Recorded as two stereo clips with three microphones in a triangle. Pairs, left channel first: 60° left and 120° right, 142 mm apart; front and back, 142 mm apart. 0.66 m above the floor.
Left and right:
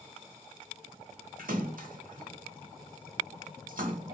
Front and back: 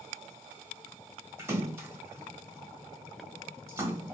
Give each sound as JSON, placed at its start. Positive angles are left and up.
{"t": 1.4, "sound": "a splash", "azimuth_deg": -110, "distance_m": 1.0}